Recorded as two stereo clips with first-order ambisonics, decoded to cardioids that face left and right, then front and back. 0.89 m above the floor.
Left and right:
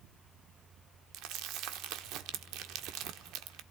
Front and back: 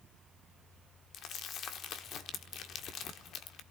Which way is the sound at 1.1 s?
55° right.